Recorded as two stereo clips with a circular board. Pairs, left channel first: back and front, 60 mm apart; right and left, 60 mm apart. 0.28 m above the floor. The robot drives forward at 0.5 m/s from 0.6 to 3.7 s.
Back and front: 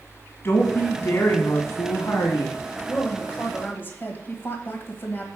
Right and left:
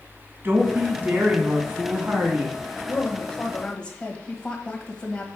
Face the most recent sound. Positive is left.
turn(degrees=-150)